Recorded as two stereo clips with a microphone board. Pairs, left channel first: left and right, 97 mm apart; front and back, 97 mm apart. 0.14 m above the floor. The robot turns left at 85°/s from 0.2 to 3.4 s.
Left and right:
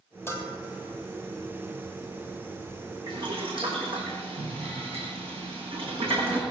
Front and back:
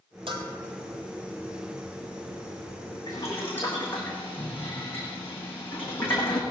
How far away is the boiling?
About 6 m.